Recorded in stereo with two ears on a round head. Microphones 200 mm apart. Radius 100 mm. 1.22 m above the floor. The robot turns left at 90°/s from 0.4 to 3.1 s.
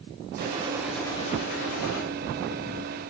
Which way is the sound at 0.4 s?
135° right.